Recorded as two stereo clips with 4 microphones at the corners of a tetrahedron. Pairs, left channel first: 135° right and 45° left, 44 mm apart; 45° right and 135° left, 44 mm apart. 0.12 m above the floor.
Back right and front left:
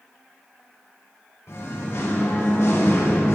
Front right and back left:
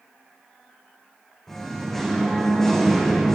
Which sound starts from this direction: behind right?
Singing, at 1.5 s.